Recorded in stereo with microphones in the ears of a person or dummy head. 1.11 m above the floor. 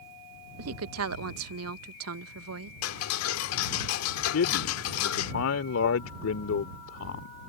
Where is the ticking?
85° left.